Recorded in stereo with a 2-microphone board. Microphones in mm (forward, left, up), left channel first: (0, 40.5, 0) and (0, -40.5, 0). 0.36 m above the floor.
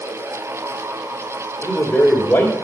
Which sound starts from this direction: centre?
A man speaking, at 1.6 s.